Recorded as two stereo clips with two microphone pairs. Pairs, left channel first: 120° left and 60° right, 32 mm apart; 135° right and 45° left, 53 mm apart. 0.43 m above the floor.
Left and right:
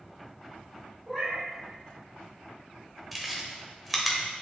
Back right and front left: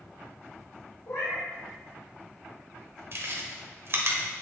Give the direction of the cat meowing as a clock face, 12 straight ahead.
4 o'clock.